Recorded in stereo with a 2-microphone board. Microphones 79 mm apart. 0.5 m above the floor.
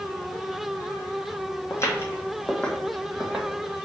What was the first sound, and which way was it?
Footsteps, 40° left (ahead or behind).